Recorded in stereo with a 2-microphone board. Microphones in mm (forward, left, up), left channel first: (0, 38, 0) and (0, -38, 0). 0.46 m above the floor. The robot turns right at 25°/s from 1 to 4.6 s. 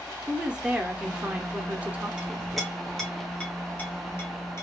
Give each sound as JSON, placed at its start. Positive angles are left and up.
{"t": 0.3, "sound": "a woman speaking", "side_deg": -10, "distance_m": 0.7}
{"t": 2.2, "sound": "a clink", "side_deg": -10, "distance_m": 1.0}